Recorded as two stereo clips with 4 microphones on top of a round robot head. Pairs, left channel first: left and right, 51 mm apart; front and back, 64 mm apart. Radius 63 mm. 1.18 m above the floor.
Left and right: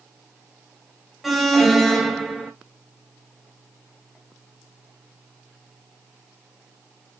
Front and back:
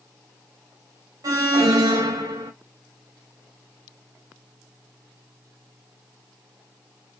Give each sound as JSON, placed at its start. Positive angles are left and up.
{"t": 1.2, "sound": "an alarm", "azimuth_deg": 180, "distance_m": 1.1}